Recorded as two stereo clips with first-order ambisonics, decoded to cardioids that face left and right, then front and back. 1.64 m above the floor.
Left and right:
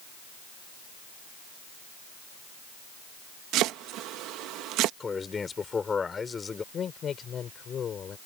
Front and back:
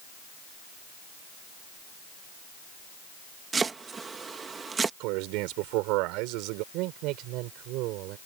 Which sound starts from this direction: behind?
A man speaking, at 5.0 s.